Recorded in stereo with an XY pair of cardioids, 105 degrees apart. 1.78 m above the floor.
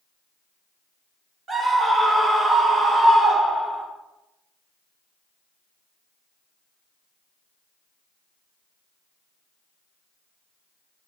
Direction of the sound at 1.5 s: 40° right.